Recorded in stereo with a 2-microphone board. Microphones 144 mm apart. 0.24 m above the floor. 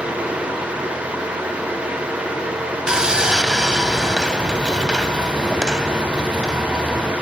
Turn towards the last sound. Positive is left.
turn(degrees=-5)  # may be behind; listen again after turning